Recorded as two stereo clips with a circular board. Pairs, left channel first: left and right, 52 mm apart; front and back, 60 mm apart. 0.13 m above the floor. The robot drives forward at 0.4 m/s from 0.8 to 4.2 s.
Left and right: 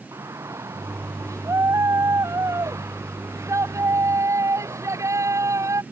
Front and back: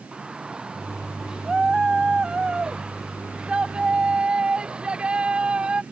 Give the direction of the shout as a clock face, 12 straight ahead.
3 o'clock.